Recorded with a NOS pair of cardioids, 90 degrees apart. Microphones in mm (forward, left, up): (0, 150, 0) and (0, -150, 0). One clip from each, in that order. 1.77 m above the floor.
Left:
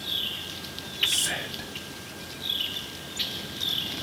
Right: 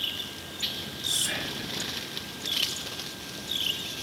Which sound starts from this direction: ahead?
Whispering, at 1.1 s.